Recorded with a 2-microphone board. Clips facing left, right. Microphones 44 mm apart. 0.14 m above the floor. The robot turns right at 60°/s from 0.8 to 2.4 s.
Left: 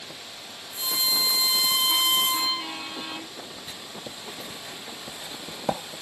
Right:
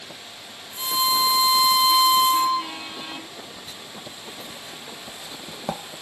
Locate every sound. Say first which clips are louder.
0.8 s a violin: right 6 dB; 30° right, 4 m; by 2.7 s 65° left, 4 m
3.7 s writing: even; 15° left (ahead or behind), 0.6 m